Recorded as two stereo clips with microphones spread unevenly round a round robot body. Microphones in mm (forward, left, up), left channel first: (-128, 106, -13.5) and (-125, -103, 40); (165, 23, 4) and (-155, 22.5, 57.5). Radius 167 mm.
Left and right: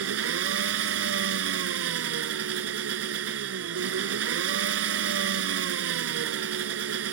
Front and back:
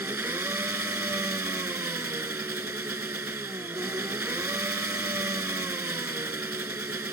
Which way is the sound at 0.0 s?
95° right.